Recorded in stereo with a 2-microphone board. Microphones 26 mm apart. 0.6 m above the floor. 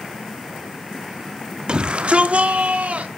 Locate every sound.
1.7 s a shout: 30° right (ahead or behind), 0.8 m; by 3.1 s 65° right (ahead or behind), 1.8 m